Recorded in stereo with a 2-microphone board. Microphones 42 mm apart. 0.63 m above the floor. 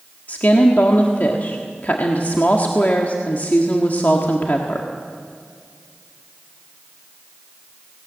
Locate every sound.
0.3 s a woman speaking: 45° left (ahead or behind), 1.5 m